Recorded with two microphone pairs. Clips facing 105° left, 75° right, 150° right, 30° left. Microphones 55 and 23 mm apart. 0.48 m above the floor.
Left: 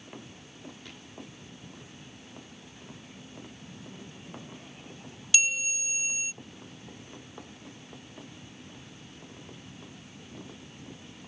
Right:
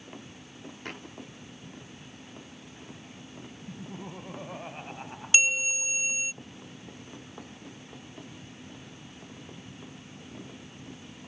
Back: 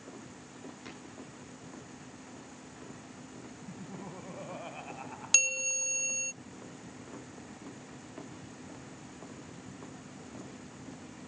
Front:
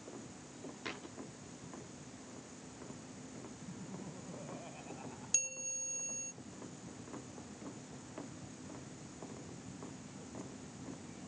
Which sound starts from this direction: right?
Laughter, at 3.7 s.